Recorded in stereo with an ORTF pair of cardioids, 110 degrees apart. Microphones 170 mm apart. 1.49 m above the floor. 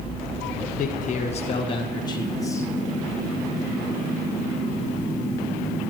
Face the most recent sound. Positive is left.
turn(degrees=15)